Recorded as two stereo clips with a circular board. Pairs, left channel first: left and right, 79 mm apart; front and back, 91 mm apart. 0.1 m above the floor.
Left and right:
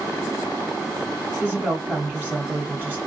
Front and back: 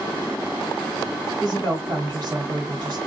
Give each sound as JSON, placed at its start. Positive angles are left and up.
{"t": 1.4, "sound": "a woman speaking", "azimuth_deg": -155, "distance_m": 2.5}